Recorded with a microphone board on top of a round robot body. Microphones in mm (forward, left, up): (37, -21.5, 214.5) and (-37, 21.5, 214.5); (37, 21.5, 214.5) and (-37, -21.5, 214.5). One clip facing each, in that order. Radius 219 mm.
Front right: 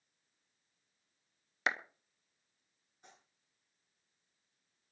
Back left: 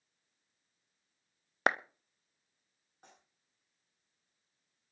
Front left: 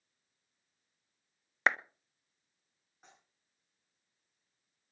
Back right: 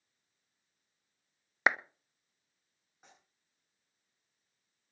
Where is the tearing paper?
120° left, 9.5 m.